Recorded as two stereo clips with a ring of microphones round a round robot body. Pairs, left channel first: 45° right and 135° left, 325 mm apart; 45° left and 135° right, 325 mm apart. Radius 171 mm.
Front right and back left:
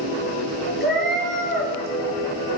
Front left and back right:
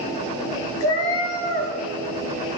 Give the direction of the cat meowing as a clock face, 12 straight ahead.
11 o'clock.